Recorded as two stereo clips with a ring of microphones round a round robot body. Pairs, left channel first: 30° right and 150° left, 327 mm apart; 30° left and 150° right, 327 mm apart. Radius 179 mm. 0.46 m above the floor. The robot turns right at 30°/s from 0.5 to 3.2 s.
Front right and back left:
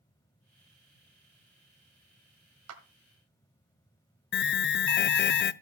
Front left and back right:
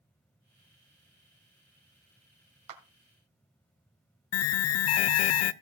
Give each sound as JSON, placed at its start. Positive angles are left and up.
{"t": 2.7, "sound": "a clap", "azimuth_deg": -170, "distance_m": 1.9}
{"t": 4.3, "sound": "an alarm", "azimuth_deg": 15, "distance_m": 0.5}